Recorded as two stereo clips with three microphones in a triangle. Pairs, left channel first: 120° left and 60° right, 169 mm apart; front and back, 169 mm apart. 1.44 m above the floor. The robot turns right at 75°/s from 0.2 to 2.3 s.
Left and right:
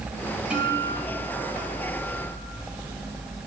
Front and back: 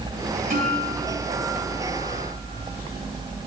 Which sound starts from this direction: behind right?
A guitar, at 0.5 s.